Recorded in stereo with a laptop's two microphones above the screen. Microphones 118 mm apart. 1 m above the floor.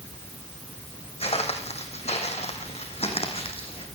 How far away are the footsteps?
About 3 m.